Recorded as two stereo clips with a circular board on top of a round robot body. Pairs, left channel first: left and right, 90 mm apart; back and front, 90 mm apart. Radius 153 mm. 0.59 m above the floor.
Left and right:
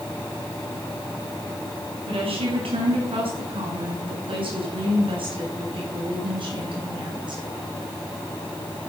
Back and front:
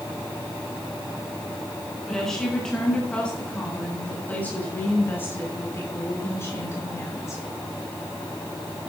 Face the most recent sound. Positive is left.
turn(degrees=-120)